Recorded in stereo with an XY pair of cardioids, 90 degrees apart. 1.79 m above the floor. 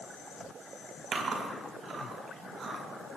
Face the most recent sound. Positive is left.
turn(degrees=-65)